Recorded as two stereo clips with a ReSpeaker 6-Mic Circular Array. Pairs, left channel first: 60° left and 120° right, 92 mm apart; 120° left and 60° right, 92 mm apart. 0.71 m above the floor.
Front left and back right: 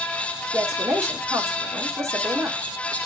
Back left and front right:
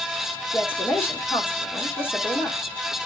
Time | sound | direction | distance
0.5 | a woman speaking | straight behind | 1.9 m